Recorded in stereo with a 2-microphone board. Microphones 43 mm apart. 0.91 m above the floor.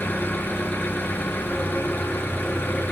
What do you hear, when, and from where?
0.0 s an engine running: 50° left (ahead or behind), 5.5 m